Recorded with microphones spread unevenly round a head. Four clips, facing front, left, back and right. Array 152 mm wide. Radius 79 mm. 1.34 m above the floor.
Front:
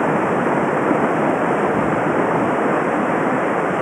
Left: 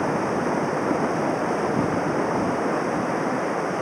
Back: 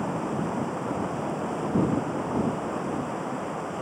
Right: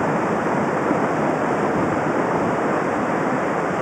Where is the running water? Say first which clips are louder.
Right 3 dB, front 11 dB; straight ahead.